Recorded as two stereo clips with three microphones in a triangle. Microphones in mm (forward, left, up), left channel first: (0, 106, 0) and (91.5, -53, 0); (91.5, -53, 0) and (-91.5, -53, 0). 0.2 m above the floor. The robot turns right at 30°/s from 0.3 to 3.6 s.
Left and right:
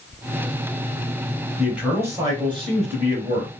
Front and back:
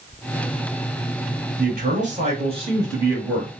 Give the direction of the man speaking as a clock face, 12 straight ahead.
5 o'clock.